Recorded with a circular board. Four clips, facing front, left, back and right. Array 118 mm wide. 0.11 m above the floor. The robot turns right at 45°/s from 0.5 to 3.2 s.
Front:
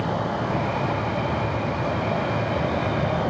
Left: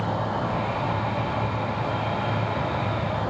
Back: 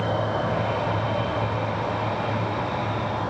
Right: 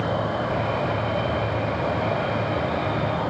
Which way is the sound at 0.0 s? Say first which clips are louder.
Right 2 dB, back 1 dB; 160° right.